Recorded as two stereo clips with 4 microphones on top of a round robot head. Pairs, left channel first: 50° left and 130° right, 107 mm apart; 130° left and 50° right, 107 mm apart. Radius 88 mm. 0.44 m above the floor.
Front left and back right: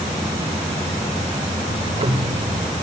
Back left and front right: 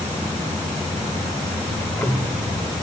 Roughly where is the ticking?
Behind right.